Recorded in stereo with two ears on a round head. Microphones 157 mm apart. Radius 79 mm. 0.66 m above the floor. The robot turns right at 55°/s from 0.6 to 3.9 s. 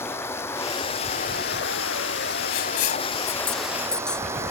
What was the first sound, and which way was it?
Running water, 15° left.